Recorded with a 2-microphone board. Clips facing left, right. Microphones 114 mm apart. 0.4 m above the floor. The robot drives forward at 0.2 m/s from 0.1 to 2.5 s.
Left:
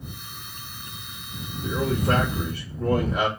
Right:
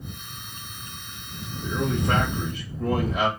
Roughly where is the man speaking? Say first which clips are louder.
Left 1 dB; left.